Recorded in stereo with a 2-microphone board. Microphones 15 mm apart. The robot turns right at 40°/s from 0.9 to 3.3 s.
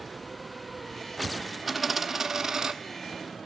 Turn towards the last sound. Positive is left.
turn(degrees=-110)